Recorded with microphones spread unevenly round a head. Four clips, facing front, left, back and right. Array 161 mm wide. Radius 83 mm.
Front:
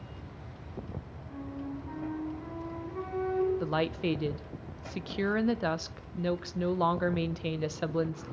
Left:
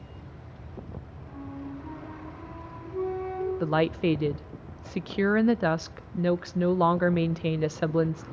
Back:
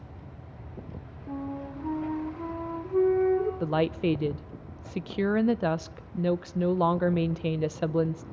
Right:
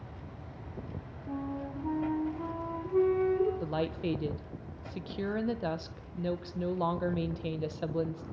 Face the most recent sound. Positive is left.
turn(degrees=135)